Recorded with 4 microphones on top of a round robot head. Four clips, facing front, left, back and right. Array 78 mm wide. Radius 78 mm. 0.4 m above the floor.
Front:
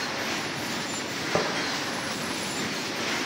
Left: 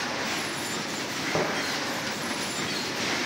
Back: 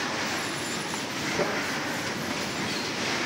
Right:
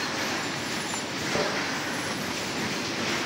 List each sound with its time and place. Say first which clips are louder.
1.3 s tapping: left 1 dB, front 2 dB; 30° left, 8 m